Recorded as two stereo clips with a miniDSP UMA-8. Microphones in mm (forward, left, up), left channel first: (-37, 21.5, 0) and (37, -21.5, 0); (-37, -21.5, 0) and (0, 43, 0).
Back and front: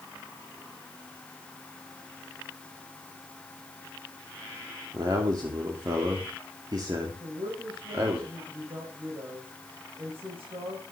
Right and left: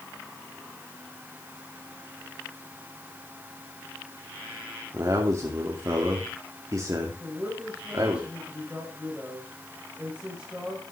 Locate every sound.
4.9 s a man speaking: 15° left, 2.5 m
7.2 s a woman speaking: 15° right, 5 m